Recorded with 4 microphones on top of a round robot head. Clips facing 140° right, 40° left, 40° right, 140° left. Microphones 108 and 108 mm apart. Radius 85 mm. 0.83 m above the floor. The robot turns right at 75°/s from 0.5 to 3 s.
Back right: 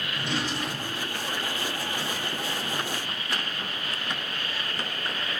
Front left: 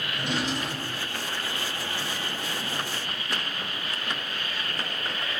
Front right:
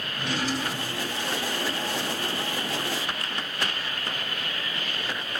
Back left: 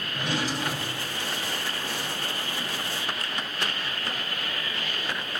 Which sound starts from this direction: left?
A drawer, at 0.1 s.